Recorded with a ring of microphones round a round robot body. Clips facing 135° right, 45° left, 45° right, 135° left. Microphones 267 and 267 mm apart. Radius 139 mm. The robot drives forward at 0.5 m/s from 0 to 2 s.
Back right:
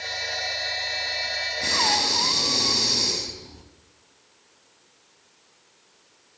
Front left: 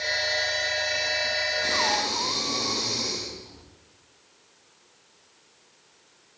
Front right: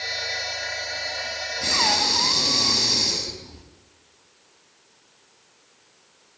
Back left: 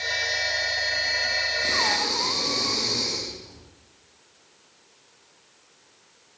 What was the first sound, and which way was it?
Breathing, 85° right.